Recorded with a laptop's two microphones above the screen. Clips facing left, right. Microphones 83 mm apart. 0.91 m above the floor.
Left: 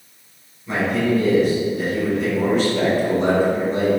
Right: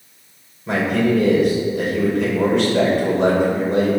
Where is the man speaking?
75° right (ahead or behind), 3 m.